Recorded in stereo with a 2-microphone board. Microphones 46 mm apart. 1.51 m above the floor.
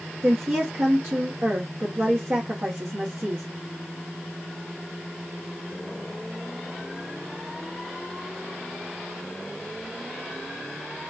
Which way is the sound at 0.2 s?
55° right (ahead or behind).